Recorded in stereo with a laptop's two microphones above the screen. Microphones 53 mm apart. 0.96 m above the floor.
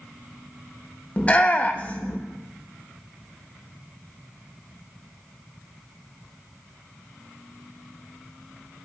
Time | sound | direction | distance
1.2 | a shout | 25° left (ahead or behind) | 0.8 m